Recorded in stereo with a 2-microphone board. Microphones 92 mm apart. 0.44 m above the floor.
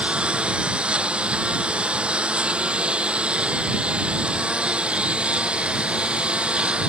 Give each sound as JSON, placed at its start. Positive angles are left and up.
{"t": 0.0, "sound": "a lawn mower", "side_deg": -10}